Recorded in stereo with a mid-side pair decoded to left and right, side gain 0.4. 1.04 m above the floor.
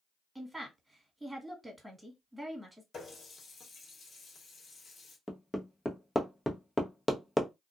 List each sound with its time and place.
0.3 s a woman speaking: 5° right, 1.6 m
2.9 s a running tap: 55° left, 1.2 m
5.3 s hammering: 15° left, 0.7 m